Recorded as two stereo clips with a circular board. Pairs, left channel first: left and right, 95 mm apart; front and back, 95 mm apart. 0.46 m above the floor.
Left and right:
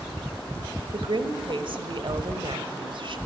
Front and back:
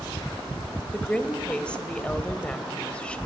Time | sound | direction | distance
0.9 | a woman speaking | 80° right | 1.7 m